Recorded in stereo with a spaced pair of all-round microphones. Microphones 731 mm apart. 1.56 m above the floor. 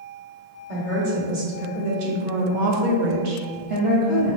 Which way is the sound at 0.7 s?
45° right (ahead or behind).